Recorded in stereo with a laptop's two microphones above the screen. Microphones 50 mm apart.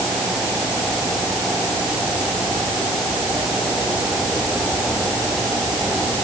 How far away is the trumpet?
No trumpet in this recording.